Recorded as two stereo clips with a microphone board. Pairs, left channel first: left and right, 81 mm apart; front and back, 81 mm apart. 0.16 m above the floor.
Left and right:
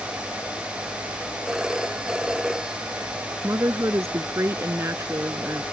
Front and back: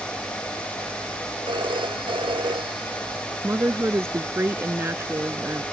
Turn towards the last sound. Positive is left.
turn(degrees=-130)